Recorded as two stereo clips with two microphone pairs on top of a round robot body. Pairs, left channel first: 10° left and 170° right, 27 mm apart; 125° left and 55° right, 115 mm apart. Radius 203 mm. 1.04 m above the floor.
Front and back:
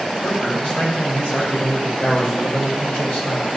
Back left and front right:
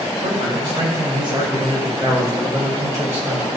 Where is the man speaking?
20° right, 6.5 m; by 3.5 s 15° left, 6.5 m.